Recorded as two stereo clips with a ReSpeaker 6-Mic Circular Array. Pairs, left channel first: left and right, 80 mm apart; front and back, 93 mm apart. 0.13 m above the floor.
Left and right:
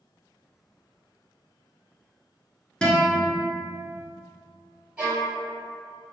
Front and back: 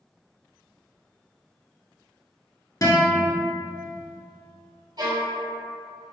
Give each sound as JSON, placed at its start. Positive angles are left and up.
{"t": 2.8, "sound": "a guitar", "azimuth_deg": 20, "distance_m": 1.0}
{"t": 5.0, "sound": "a violin", "azimuth_deg": -160, "distance_m": 1.5}